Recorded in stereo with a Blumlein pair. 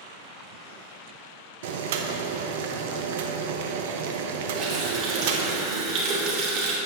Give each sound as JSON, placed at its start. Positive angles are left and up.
{"t": 1.6, "sound": "boiling", "azimuth_deg": -55, "distance_m": 0.8}
{"t": 4.5, "sound": "a running tap", "azimuth_deg": -35, "distance_m": 2.0}